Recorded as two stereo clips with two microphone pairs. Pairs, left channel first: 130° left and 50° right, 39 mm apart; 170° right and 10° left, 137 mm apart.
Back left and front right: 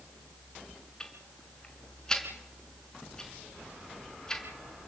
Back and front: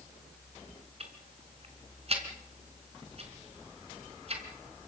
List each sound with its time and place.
1.0 s ticking: 50° left, 4 m